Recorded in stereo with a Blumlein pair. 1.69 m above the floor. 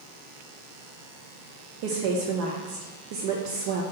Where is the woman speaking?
45° right, 0.8 m.